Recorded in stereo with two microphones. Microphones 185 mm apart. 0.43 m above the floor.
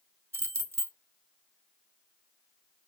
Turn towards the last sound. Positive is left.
turn(degrees=-15)  # may be behind; listen again after turning